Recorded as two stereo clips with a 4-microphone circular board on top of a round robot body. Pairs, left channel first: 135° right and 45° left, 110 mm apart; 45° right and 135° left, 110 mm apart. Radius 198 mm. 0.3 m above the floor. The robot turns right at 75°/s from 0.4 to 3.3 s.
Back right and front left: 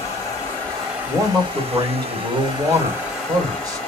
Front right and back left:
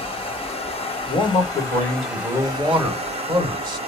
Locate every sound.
0.0 s running water: 75° right, 1.9 m; by 3.9 s 145° left, 1.9 m
1.1 s a man speaking: 70° right, 2.0 m; by 3.8 s 100° left, 2.0 m